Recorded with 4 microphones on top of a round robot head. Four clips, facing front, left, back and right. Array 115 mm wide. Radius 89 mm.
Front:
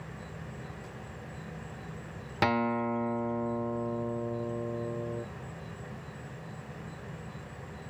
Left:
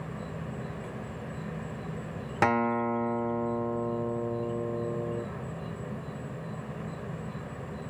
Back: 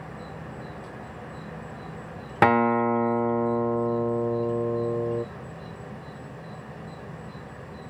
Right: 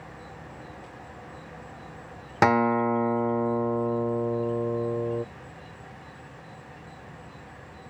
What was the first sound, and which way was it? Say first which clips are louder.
An insect: left 5 dB, back 6 dB; 115° left.